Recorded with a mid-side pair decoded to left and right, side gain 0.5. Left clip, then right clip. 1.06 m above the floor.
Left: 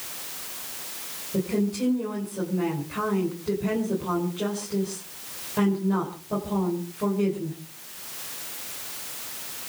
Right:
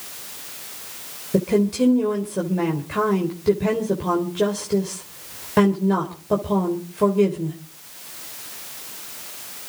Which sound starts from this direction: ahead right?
A woman speaking, at 1.3 s.